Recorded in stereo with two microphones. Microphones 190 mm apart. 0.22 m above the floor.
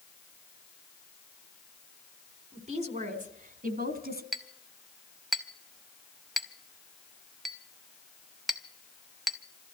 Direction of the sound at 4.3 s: Centre (ahead or behind).